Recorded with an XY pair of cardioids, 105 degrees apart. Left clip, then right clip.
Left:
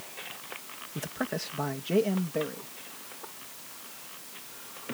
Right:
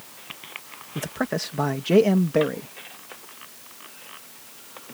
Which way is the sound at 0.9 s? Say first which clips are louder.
Right 6 dB; 35° right.